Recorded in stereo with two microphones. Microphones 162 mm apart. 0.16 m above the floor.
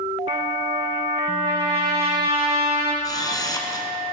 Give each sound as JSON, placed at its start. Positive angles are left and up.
{"t": 0.3, "sound": "a trumpet", "side_deg": -35, "distance_m": 3.5}
{"t": 3.0, "sound": "a camera shutter", "side_deg": 25, "distance_m": 1.6}